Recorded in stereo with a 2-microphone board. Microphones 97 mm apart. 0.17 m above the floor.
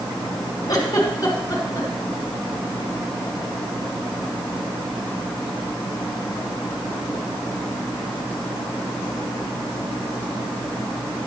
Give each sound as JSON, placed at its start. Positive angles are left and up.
{"t": 0.7, "sound": "a giggle", "side_deg": 40, "distance_m": 1.7}